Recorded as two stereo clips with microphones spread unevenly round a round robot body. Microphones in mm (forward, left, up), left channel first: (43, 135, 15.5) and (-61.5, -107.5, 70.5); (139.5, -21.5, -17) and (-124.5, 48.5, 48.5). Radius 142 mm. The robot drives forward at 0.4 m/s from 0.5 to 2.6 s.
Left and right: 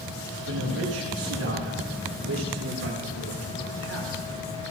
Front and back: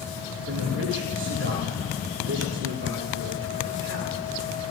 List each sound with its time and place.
0.5 s a man speaking: 145° right, 8.5 m; by 4.2 s 150° right, 9.5 m